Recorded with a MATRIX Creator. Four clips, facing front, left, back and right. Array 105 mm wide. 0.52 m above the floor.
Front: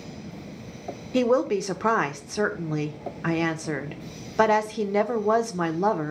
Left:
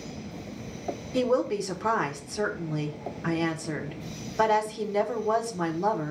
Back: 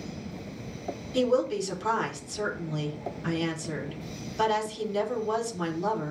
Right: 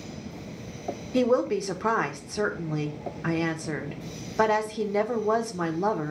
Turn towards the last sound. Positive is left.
turn(degrees=-15)